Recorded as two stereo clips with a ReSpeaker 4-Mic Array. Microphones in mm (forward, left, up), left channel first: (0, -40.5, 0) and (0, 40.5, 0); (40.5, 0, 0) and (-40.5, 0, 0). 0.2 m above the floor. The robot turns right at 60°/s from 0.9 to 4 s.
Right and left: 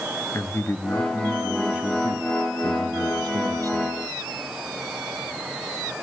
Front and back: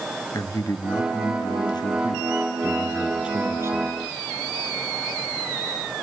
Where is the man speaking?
35° right, 2.5 m; by 4.0 s 150° left, 2.5 m.